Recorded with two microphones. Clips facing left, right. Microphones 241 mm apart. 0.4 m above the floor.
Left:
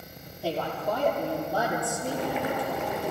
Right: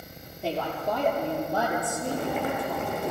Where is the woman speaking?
20° right (ahead or behind), 7.5 m.